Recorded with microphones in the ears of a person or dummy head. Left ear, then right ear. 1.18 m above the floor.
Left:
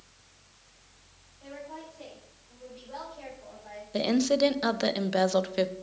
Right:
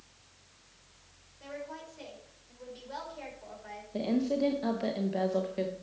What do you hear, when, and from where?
1.4 s a woman speaking: 80° right, 5.5 m; by 3.8 s 75° right (ahead or behind), 5.5 m
3.9 s a woman speaking: 55° left (ahead or behind), 0.9 m